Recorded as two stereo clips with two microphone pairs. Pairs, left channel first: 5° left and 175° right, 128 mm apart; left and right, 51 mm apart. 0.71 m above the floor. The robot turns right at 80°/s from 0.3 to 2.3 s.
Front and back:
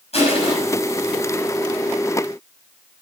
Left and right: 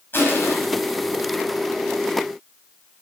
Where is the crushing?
40° left, 6 m; by 0.5 s 60° left, 6 m.